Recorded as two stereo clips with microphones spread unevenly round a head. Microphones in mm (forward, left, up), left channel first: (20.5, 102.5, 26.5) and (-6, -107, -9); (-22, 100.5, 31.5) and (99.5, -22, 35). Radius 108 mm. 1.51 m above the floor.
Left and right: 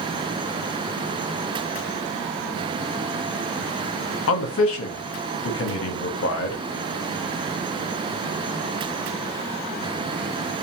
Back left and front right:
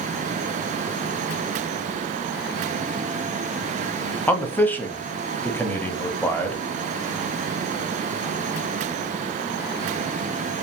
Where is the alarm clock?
No alarm clock in this recording.